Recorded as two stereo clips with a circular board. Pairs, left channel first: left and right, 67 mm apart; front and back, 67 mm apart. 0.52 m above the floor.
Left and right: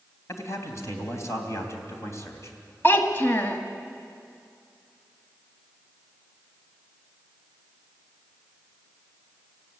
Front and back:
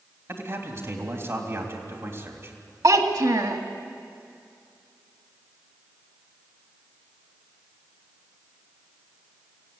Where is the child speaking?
150° left, 1.8 m.